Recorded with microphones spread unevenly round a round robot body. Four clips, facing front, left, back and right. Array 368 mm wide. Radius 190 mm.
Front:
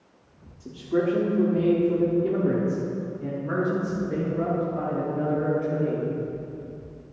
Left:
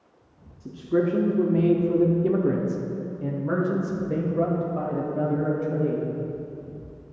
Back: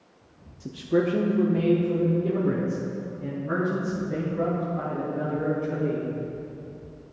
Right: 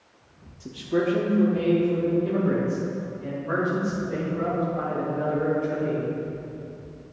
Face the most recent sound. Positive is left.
turn(degrees=65)